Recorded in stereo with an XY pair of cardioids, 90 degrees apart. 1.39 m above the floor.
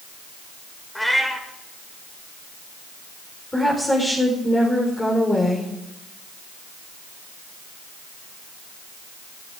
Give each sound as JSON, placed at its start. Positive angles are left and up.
{"t": 0.9, "sound": "a cat meowing", "azimuth_deg": 5, "distance_m": 2.5}
{"t": 3.5, "sound": "a woman speaking", "azimuth_deg": 20, "distance_m": 4.0}